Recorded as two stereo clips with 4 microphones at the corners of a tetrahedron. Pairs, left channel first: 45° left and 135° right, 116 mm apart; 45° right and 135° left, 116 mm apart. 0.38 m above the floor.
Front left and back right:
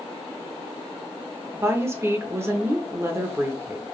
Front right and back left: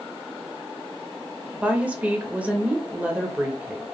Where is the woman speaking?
165° right, 0.8 m.